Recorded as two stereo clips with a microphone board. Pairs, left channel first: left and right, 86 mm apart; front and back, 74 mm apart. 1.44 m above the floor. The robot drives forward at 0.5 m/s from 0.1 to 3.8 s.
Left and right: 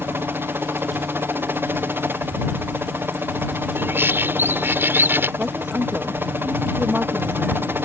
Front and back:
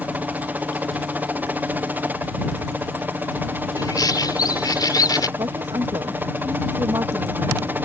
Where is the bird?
25° right.